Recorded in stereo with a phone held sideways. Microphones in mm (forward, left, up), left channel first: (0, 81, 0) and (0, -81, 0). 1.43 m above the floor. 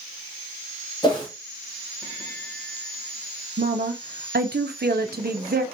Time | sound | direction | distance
1.0 | a whoosh | 25° left (ahead or behind) | 1.4 m
3.6 | a woman speaking | 75° right (ahead or behind) | 0.7 m